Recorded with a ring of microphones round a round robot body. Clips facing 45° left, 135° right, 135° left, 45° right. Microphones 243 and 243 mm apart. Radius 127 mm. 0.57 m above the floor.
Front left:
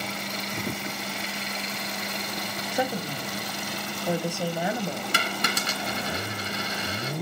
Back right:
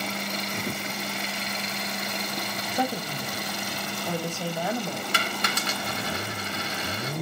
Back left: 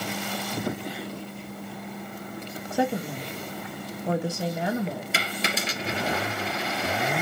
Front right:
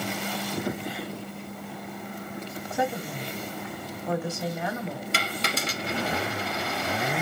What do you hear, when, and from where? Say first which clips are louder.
2.7 s a woman speaking: front left 1 dB, back left 4 dB; 110° left, 0.9 m
5.1 s a dropped coin: front left 1 dB, back left 1 dB; 50° left, 2 m